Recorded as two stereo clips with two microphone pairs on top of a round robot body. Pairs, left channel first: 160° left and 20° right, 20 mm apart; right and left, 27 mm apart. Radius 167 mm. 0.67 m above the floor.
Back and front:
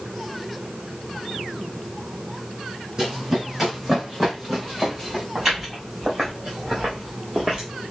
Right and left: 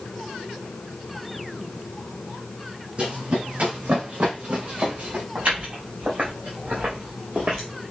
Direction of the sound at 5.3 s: 65° left.